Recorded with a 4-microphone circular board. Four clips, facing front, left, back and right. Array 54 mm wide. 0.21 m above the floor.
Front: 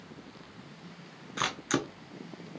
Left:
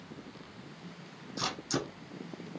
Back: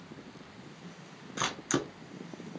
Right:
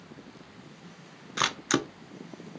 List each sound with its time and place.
1.4 s a camera shutter: 80° right, 0.6 m